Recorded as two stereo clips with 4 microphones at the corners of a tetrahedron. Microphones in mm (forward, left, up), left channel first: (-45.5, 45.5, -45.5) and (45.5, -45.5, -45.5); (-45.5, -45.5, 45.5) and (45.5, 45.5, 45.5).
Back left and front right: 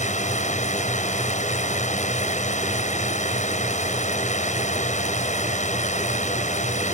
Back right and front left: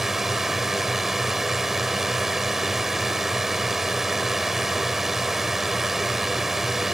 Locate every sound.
0.0 s a drone: 130° left